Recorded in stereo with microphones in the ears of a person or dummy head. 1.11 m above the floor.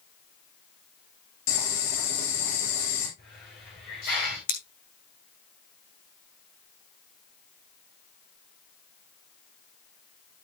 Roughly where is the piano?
No piano in this recording.